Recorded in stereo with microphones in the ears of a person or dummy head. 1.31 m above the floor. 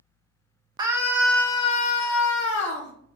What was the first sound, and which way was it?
A scream, 25° right (ahead or behind).